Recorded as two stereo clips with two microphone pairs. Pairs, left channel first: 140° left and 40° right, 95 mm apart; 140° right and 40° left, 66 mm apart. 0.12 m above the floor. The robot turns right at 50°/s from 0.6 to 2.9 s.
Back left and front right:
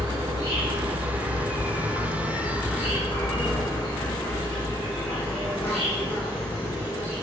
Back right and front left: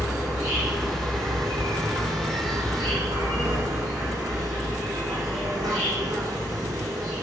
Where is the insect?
50° right, 7 m; by 7.2 s 65° left, 7 m.